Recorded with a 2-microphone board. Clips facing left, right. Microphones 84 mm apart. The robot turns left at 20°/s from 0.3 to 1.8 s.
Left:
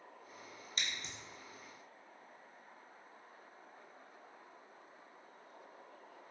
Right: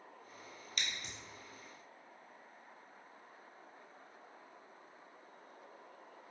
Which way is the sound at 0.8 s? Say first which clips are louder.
Even; 35° left (ahead or behind).